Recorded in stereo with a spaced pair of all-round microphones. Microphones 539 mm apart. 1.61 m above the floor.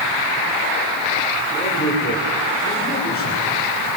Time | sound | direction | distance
1.5 | a man speaking | 20° left (ahead or behind) | 6.5 m